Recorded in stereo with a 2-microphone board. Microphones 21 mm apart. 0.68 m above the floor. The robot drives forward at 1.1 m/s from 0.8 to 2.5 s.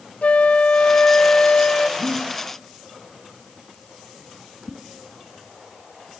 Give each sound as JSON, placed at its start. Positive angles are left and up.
{"t": 0.2, "sound": "a flute", "side_deg": 65, "distance_m": 1.0}
{"t": 2.0, "sound": "breathing", "side_deg": 85, "distance_m": 7.5}
{"t": 4.7, "sound": "a whoosh", "side_deg": 0, "distance_m": 3.5}